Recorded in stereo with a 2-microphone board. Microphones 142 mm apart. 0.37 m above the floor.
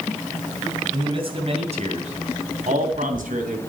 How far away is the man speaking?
About 3 m.